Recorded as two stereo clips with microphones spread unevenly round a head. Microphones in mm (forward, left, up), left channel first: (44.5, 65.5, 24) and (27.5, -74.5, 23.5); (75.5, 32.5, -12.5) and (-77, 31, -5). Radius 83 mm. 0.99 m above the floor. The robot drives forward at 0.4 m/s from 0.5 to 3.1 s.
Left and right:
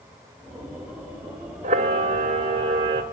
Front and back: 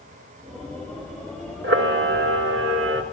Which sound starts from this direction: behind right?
A camera shutter, at 1.6 s.